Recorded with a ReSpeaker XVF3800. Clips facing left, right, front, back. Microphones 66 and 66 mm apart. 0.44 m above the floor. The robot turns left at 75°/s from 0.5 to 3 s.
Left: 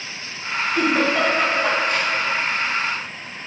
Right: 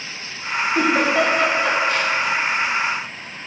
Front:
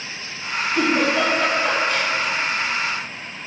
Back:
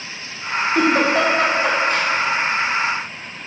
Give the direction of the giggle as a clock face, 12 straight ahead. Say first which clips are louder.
Right 1 dB, back 3 dB; 5 o'clock.